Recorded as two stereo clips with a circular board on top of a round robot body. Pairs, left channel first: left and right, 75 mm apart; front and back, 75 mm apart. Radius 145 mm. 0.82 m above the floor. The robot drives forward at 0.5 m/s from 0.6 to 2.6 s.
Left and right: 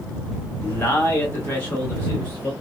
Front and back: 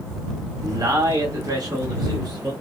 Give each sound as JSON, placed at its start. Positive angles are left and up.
{"t": 0.6, "sound": "a man speaking", "azimuth_deg": 150, "distance_m": 1.6}